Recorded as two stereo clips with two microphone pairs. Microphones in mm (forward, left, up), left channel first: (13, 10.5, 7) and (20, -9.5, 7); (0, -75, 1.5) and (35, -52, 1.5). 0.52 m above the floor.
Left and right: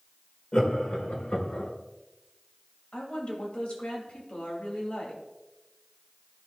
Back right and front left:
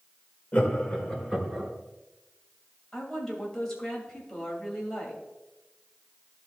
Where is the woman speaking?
140° left, 2.5 m.